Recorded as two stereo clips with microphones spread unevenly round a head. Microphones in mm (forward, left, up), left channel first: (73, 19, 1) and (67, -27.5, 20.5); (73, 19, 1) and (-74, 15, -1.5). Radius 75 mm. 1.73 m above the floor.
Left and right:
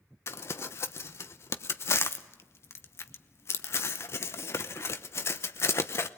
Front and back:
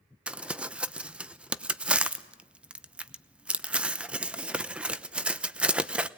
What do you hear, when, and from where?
0.3 s crumpling: 105° left, 0.8 m